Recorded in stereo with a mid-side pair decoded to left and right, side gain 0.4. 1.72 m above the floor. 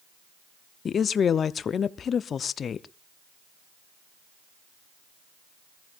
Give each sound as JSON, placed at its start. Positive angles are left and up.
{"t": 0.8, "sound": "a woman speaking", "azimuth_deg": 55, "distance_m": 0.6}